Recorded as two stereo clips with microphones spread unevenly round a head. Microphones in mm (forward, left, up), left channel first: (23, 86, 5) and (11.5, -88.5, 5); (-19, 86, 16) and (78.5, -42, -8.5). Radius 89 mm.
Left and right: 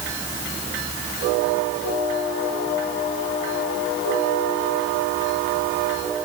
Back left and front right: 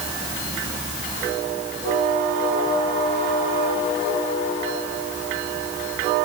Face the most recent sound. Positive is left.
No sound to turn to.